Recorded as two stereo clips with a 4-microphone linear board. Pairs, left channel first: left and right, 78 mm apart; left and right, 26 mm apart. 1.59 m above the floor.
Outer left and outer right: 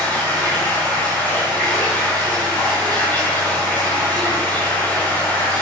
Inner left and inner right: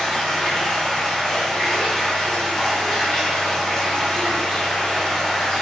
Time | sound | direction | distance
0.0 | running water | 20° left (ahead or behind) | 4 m